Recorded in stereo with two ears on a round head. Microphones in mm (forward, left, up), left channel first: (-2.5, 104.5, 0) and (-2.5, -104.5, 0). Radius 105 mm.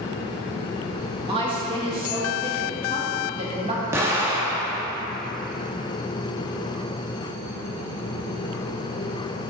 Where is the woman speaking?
25° right (ahead or behind), 1.8 m.